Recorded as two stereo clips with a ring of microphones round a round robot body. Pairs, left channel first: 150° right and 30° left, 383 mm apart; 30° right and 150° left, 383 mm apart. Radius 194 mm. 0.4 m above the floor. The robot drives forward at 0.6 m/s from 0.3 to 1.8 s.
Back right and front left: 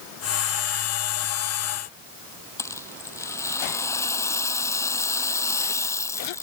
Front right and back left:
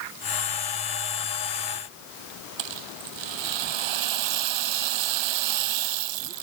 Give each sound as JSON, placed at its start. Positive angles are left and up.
{"t": 2.6, "sound": "a rattle", "azimuth_deg": 125}